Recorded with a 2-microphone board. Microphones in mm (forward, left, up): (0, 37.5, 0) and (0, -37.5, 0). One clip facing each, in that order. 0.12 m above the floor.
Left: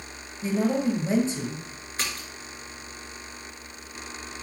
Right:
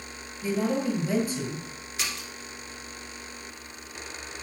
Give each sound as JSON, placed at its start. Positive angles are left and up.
{"t": 0.4, "sound": "a woman speaking", "side_deg": 25, "distance_m": 2.5}
{"t": 2.0, "sound": "a splash", "side_deg": 40, "distance_m": 2.5}